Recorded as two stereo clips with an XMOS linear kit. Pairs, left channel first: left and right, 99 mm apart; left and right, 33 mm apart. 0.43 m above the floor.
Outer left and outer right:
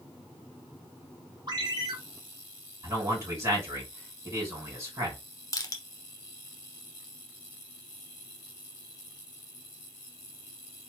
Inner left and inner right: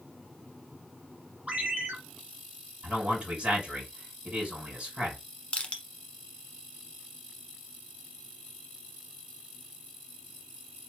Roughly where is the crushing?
Left.